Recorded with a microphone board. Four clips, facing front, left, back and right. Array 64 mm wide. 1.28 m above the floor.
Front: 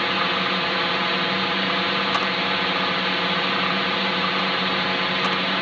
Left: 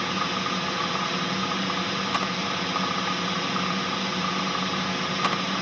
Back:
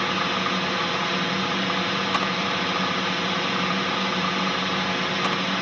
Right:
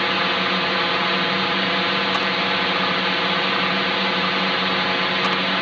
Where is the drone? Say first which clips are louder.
Right 6 dB, front 2 dB; 70° right.